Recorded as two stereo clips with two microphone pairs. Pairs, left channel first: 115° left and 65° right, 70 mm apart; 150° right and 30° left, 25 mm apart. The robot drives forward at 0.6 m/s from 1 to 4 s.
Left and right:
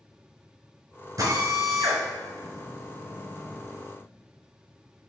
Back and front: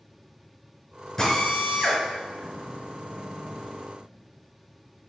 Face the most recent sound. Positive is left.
turn(degrees=-145)